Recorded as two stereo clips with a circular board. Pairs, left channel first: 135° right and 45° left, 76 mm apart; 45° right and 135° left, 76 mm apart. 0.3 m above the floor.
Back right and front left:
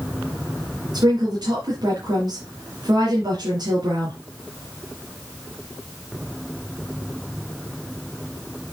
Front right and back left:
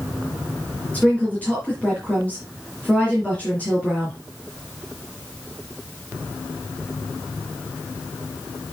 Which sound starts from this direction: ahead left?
A woman speaking, at 0.9 s.